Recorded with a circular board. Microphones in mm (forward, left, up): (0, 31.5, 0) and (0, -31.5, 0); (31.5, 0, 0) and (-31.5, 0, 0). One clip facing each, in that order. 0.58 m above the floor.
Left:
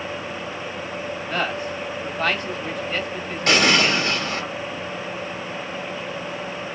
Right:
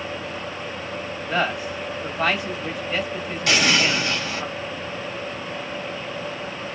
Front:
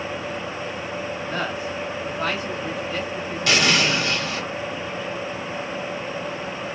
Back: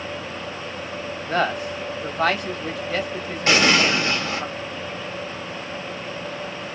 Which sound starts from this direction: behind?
A man speaking, at 1.3 s.